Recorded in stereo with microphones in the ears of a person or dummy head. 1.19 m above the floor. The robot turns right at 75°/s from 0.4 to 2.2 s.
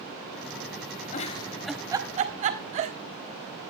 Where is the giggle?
40° left (ahead or behind), 1.3 m; by 3.0 s 35° right (ahead or behind), 1.3 m.